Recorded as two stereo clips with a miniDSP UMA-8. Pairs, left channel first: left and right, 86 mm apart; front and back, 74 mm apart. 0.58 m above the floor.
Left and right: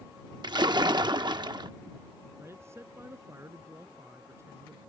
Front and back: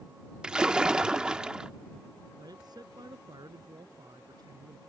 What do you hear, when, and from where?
0.4 s a splash: 105° right
2.4 s a man speaking: 150° right